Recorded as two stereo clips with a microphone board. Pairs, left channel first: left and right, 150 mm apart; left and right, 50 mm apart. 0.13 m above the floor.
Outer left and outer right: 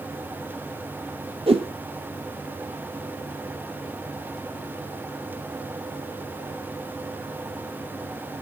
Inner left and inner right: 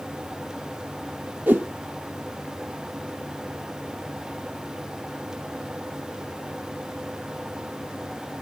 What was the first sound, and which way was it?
A whoosh, 40° right (ahead or behind).